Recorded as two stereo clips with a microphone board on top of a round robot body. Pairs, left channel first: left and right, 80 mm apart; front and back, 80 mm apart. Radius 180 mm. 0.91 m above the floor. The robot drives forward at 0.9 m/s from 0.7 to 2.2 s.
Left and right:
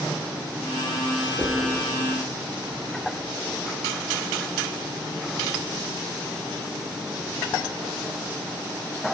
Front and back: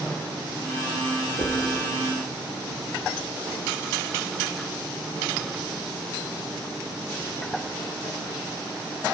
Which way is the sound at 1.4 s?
125° right.